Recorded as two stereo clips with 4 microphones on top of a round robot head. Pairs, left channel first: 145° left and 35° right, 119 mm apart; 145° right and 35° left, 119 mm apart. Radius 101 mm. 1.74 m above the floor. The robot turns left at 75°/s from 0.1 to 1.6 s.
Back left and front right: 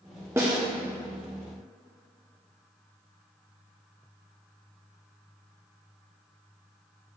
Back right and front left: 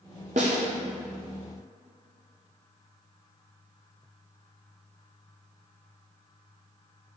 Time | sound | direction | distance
0.4 | a snare drum | 30° left | 0.7 m